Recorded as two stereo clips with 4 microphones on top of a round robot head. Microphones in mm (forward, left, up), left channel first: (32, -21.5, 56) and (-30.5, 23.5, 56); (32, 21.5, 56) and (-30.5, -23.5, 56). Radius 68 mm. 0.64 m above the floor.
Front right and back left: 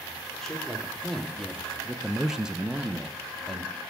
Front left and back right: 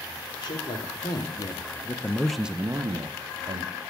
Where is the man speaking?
50° left, 1.6 m; by 3.7 s 135° right, 1.2 m.